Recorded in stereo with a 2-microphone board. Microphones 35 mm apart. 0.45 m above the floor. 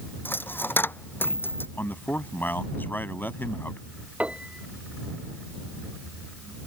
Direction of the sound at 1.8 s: 70° left (ahead or behind).